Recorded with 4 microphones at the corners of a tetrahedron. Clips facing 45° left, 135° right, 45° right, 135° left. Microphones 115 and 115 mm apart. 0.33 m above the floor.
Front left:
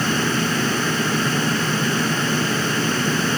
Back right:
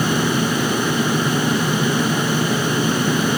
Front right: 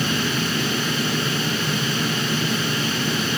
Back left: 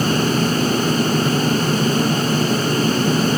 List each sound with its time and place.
Only background noise.